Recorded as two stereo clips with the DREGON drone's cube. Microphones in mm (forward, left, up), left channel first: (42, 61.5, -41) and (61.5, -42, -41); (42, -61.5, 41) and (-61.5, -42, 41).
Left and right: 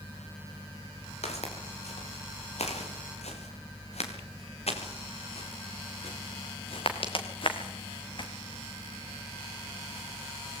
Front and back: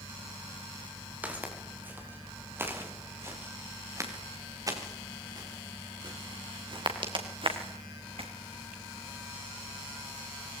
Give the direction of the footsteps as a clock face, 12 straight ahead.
9 o'clock.